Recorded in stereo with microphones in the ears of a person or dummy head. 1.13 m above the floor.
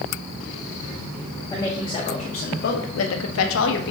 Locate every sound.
1.5 s a woman speaking: 10° left (ahead or behind), 1.4 m; by 3.9 s 65° left (ahead or behind), 1.3 m